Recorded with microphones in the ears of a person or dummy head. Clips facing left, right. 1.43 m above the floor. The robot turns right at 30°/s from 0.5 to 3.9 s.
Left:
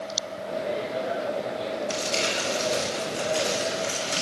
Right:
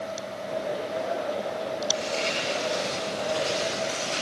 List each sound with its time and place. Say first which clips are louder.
1.9 s crumpling: even; 75° left, 6.5 m; by 4.2 s 135° left, 6.5 m